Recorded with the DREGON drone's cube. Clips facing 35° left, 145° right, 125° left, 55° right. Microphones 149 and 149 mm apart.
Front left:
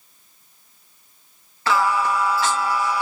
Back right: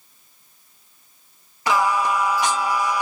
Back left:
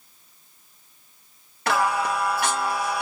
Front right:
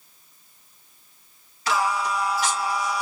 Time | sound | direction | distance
1.7 | singing | 140° left | 0.8 m